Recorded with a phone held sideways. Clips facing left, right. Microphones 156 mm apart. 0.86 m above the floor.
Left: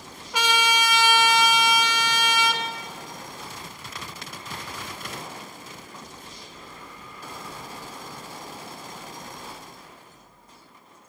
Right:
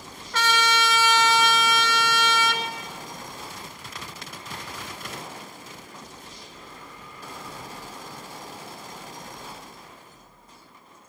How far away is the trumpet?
About 0.9 m.